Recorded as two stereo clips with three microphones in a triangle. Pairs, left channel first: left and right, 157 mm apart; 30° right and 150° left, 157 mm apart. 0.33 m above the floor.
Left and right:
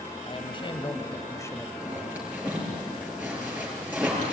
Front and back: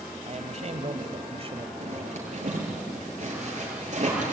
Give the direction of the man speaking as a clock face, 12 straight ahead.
8 o'clock.